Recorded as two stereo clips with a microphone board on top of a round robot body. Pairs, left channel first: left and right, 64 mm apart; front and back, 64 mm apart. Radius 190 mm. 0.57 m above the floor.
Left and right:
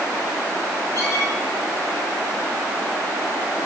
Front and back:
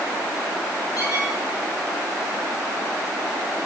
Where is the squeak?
40° left, 7 m.